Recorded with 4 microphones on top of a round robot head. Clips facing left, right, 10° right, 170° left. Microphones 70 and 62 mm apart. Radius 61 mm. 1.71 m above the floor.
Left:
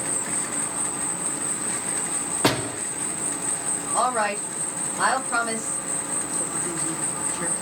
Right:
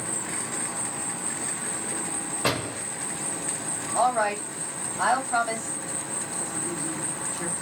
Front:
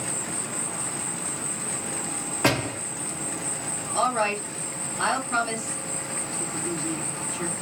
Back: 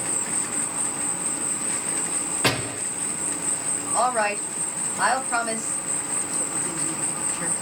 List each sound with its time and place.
0.0 s an insect: 105° left, 2 m
2.4 s a door slam: 65° left, 1.8 m
3.9 s a woman speaking: 95° left, 2 m